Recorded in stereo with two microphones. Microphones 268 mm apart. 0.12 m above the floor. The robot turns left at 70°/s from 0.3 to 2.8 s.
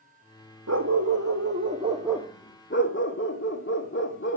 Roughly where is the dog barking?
Right.